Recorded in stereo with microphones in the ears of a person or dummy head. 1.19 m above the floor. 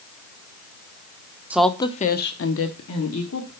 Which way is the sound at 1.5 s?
5° right (ahead or behind).